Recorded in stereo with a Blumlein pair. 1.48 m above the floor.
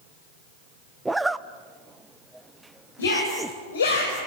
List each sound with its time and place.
1.1 s a zipper: 5° right, 0.7 m
3.0 s a shout: 65° left, 6 m